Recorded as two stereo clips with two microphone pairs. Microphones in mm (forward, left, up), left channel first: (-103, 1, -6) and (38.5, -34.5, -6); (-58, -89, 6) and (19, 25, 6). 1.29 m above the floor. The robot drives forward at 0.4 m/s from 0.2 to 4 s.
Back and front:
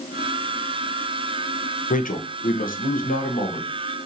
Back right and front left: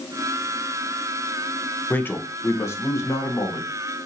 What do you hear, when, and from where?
1.9 s a man speaking: 165° left, 0.7 m; by 3.7 s 175° left, 1.3 m